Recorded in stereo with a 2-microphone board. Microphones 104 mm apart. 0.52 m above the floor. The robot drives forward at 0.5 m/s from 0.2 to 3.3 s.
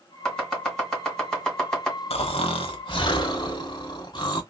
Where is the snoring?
75° left (ahead or behind), 0.9 m; by 4.4 s 45° left (ahead or behind), 1.2 m.